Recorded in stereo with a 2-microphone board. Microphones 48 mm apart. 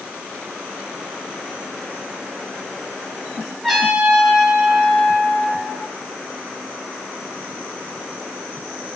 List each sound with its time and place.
3.6 s a trumpet: 5° left (ahead or behind), 4.5 m